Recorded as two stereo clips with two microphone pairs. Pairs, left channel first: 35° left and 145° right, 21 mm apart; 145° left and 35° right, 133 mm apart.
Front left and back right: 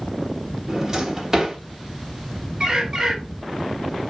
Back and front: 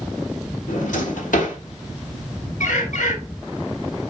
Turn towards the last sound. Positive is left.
turn(degrees=165)